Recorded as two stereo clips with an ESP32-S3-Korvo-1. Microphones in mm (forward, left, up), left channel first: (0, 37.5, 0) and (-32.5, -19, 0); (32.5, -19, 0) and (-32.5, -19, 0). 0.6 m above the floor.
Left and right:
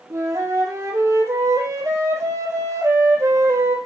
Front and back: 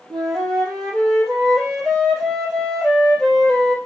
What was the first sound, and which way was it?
A flute, 85° right.